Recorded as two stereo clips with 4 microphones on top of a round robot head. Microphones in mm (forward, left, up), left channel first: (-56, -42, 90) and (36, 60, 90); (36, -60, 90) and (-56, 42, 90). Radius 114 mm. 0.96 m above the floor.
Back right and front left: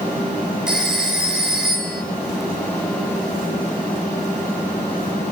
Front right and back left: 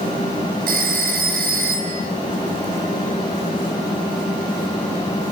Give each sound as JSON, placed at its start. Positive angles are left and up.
{"t": 0.7, "sound": "a phone ringing", "azimuth_deg": 135, "distance_m": 3.0}